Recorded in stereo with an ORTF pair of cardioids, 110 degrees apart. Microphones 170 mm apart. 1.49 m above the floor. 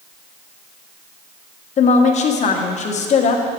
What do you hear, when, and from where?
1.8 s a woman speaking: 45° left, 1.0 m